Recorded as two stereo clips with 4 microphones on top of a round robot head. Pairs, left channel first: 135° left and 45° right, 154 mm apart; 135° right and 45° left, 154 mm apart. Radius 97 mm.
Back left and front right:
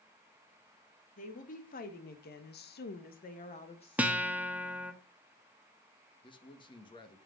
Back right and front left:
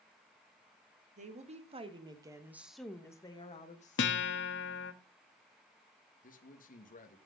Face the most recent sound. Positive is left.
turn(degrees=-165)